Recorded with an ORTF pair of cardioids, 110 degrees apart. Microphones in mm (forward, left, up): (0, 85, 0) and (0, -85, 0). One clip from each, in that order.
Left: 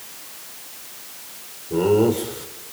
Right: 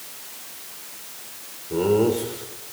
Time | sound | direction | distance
1.7 | laughter | 10° left | 5.5 m